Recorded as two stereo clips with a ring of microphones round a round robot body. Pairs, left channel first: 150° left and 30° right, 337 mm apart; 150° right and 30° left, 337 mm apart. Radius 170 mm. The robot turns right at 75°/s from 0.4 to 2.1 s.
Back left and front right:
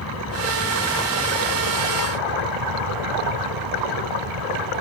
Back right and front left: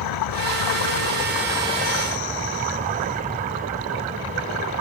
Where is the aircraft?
165° right; by 4.8 s 35° right.